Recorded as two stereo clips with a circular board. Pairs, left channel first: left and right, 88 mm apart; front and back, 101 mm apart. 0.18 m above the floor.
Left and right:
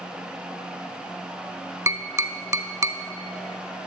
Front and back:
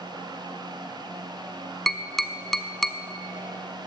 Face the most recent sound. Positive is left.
turn(degrees=-85)